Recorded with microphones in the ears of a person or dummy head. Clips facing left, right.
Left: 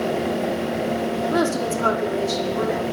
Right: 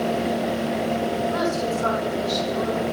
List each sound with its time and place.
1.3 s a woman speaking: 60° left (ahead or behind), 3.5 m; by 2.8 s 65° left (ahead or behind), 4.5 m